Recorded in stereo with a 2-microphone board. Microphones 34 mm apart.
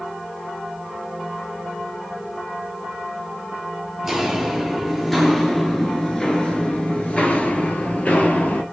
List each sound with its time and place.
4.0 s footsteps: 10° right (ahead or behind), 1.6 m; by 8.6 s 45° left (ahead or behind), 1.8 m